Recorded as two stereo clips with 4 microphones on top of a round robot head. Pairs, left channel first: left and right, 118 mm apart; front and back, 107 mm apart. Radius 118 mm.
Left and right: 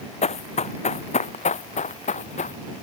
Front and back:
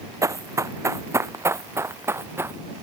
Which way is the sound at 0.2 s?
115° left.